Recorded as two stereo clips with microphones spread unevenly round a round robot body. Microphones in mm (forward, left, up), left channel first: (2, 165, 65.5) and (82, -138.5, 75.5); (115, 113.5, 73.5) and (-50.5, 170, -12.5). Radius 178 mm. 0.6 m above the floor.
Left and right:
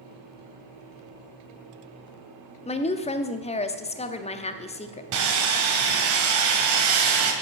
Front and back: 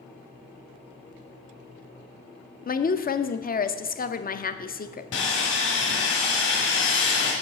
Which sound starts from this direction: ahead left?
A woman speaking, at 2.6 s.